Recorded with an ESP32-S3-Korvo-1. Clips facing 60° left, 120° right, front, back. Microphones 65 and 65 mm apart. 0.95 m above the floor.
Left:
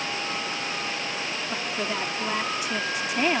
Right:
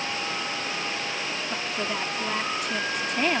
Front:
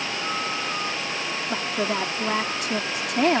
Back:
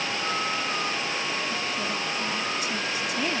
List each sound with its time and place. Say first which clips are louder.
1.5 s a woman speaking: left 1 dB, front 4 dB; 25° right